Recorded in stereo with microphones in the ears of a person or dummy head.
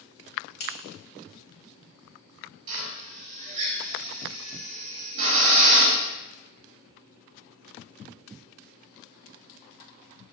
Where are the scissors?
85° left, 2.5 m.